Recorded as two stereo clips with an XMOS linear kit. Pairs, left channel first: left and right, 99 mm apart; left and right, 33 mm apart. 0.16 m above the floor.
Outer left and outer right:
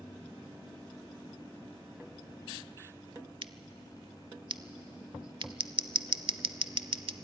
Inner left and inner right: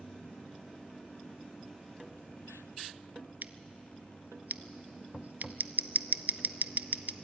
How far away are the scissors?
About 0.5 m.